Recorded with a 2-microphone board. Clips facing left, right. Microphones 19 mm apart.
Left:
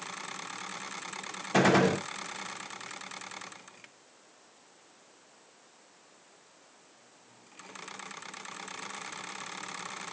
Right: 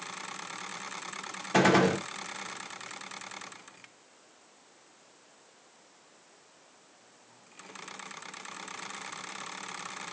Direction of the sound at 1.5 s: 15° right (ahead or behind).